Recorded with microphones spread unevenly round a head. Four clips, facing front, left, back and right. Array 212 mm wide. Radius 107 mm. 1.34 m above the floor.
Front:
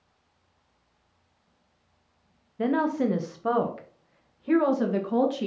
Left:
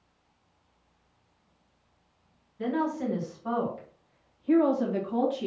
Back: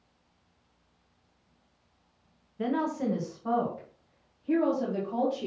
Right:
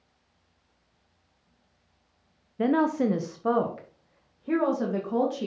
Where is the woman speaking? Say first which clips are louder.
Right 6 dB, front 5 dB; 75° right, 1.0 m; by 5.5 s 30° right, 2 m.